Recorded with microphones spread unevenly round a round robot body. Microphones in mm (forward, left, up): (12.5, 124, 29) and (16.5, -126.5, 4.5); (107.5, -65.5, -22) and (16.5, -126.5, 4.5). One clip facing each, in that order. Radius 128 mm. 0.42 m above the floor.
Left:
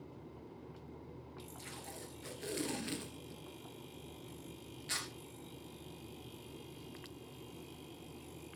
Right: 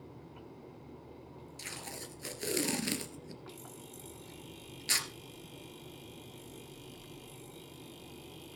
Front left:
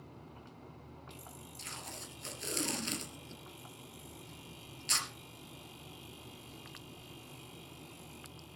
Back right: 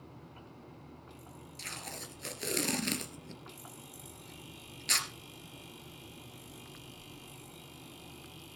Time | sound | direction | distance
1.6 | tape being pulled | 120° right | 2 m